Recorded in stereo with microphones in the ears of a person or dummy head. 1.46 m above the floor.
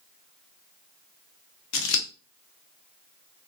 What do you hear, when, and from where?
1.7 s scissors: 70° left (ahead or behind), 0.5 m